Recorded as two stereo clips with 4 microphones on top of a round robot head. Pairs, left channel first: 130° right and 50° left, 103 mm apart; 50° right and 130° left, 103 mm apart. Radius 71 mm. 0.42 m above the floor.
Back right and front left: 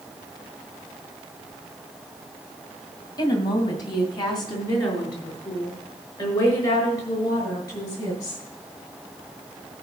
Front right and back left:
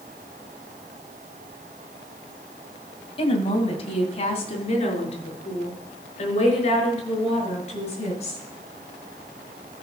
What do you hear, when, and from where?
3.2 s a woman speaking: 80° right, 2.5 m; by 8.4 s 75° right, 7 m